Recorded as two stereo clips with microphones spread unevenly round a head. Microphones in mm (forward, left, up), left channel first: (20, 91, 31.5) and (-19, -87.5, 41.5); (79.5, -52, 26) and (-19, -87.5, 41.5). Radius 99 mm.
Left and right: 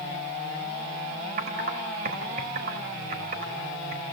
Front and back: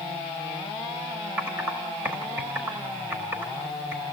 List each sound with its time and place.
1.4 s typing on a keyboard: 110° right, 1.5 m